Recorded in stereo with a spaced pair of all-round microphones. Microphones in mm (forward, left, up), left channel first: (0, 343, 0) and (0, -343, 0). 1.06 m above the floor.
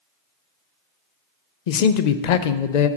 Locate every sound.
1.7 s a man speaking: 70° left (ahead or behind), 0.6 m